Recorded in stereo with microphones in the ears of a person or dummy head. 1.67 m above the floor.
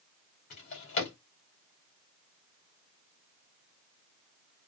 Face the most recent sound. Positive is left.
turn(degrees=50)  # may be behind; listen again after turning